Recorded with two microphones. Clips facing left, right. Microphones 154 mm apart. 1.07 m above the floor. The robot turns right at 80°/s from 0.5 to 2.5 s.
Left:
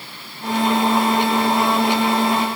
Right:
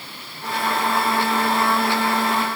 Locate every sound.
Only background noise.